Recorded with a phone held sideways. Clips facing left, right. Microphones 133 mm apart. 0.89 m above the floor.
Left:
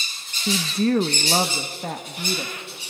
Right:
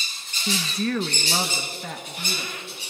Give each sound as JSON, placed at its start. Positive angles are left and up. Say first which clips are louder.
{"t": 0.5, "sound": "a woman speaking", "louder": "left 5 dB", "side_deg": 15, "distance_m": 0.6}